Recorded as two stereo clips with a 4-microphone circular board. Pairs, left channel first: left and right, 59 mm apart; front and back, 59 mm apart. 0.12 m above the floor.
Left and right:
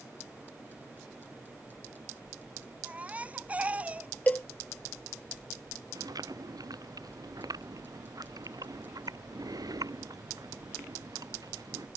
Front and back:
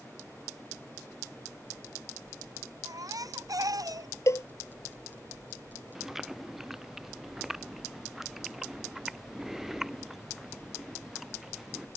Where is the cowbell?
30° left.